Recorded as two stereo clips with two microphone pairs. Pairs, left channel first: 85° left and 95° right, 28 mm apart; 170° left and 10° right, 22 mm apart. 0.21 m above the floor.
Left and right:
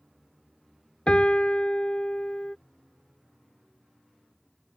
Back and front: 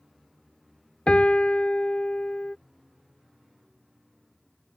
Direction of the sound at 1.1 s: 135° left.